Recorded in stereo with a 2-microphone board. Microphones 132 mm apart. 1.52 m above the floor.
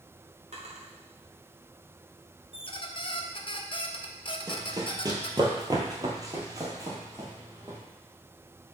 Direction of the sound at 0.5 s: 60° right (ahead or behind).